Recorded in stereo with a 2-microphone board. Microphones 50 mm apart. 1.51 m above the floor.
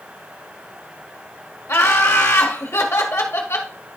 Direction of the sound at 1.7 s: 65° left (ahead or behind).